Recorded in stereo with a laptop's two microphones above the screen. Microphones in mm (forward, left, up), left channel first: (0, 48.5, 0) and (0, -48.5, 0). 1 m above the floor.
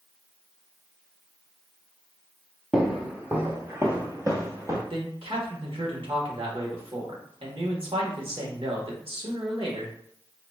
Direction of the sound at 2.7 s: 10° right (ahead or behind).